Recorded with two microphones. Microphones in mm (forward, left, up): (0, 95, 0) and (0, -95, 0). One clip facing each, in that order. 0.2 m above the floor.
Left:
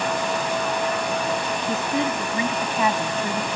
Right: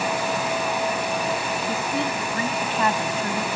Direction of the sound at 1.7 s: 20° left (ahead or behind).